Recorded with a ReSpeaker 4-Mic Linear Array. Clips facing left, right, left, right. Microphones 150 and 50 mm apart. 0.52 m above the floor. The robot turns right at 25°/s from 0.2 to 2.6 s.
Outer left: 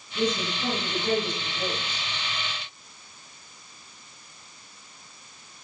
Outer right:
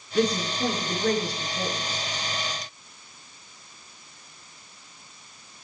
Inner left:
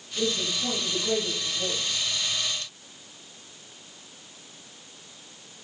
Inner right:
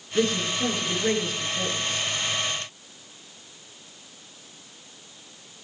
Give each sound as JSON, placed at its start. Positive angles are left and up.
{"t": 0.1, "sound": "a woman speaking", "azimuth_deg": -110, "distance_m": 8.0}